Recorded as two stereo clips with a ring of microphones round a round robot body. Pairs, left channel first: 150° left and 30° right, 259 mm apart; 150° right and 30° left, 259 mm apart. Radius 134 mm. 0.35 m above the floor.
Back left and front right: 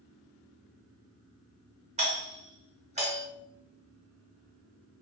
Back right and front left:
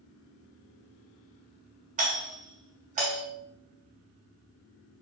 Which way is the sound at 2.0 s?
10° left.